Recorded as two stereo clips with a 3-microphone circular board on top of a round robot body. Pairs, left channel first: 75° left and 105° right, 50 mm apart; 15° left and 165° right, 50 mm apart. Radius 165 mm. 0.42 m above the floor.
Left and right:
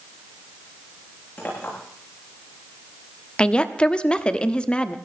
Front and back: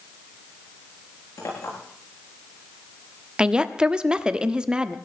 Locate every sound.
1.4 s a clink: 20° left, 7.5 m
3.4 s a woman speaking: 130° left, 1.4 m